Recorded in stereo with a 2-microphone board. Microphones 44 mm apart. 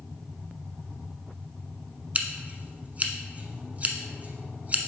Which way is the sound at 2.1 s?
35° right (ahead or behind).